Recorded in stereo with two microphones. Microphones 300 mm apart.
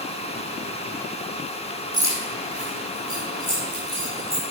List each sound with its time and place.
1.9 s keys jangling: 65° right (ahead or behind), 3 m; by 4.4 s 80° right, 5.5 m